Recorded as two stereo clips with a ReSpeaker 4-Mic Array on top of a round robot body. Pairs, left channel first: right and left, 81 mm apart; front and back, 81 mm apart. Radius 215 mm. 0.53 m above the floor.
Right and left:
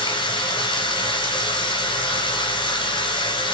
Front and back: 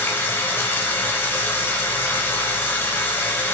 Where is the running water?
65° right, 1.0 m.